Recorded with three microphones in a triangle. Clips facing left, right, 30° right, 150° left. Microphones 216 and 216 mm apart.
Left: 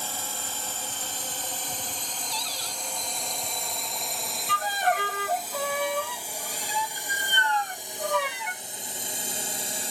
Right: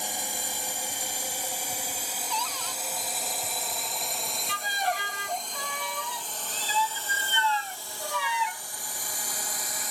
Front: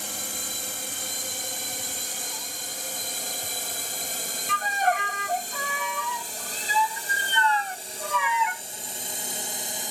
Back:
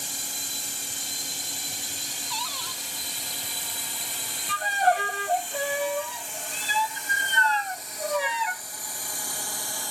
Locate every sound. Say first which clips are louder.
0.0 s a drone: right 1 dB, front 4 dB; 15° right; by 9.9 s 35° left
2.3 s a cupboard door: right 2 dB, even; 145° left
4.5 s a violin: left 5 dB, back 2 dB; 105° left